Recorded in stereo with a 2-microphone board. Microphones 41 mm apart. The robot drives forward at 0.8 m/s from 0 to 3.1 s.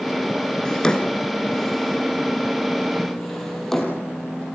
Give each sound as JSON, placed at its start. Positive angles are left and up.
{"t": 0.7, "sound": "a drawer", "side_deg": 20, "distance_m": 1.1}